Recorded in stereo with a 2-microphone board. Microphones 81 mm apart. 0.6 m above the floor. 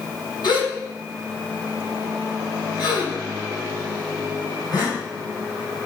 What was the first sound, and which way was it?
A gasp, 65° left (ahead or behind).